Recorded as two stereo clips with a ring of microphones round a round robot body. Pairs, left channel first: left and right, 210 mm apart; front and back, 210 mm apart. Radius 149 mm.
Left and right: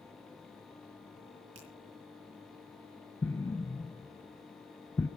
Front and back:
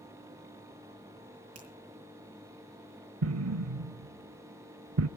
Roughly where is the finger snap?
Behind right.